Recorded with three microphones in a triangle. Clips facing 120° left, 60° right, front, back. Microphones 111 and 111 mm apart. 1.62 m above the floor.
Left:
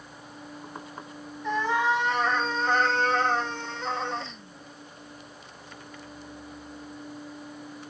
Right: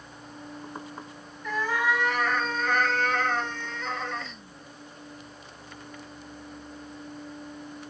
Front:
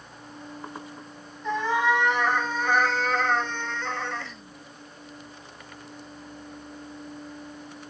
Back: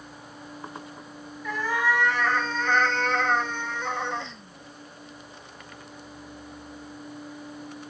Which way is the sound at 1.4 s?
60° left.